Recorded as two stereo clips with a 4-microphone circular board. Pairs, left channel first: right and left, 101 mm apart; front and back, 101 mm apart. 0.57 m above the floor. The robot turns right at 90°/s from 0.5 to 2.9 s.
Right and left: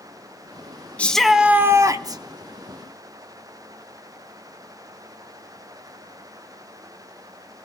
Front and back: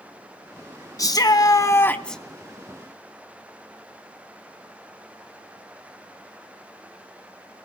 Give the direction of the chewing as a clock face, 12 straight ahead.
No chewing in this recording.